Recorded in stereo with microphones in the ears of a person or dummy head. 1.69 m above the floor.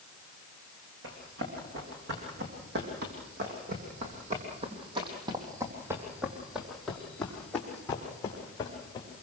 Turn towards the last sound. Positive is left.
turn(degrees=25)  # may be behind; listen again after turning